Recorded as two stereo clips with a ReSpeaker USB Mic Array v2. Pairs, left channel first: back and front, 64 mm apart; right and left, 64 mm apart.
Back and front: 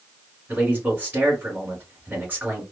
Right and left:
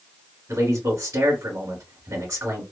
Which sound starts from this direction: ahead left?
A man speaking, at 0.5 s.